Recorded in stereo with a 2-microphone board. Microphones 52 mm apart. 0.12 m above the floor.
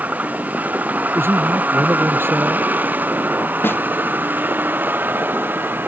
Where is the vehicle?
30° right (ahead or behind); by 5.9 s 40° right (ahead or behind).